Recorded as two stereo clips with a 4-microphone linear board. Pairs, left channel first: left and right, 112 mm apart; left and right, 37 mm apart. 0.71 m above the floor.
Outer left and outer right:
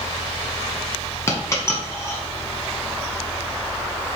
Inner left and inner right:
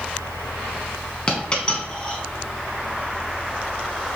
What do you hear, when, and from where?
1.3 s a dropped coin: 25° left (ahead or behind), 1.1 m